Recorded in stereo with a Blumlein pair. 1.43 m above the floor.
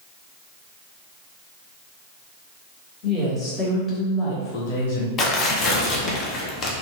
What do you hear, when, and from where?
3.0 s a woman speaking: 10° left, 1.3 m; by 5.1 s 65° left, 0.6 m
5.2 s tearing paper: 25° left, 0.6 m